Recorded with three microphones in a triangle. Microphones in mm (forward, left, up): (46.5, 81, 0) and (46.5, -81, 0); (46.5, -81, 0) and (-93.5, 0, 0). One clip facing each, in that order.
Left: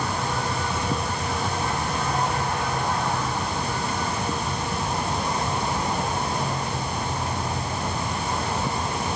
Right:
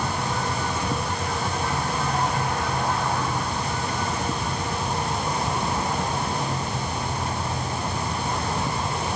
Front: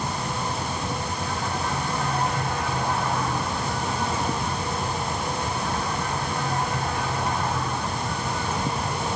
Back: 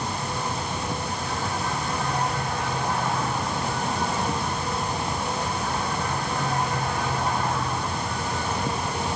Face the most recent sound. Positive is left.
No sound to turn to.